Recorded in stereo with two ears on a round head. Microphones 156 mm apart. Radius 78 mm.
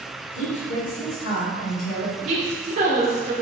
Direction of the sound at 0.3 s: 70° left (ahead or behind).